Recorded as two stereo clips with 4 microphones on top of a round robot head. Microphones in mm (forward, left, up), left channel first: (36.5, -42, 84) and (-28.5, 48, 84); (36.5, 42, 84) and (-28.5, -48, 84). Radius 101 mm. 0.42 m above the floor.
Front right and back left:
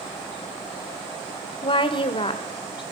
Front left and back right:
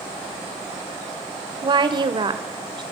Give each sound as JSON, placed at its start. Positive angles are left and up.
{"t": 1.6, "sound": "a woman speaking", "azimuth_deg": -85, "distance_m": 2.0}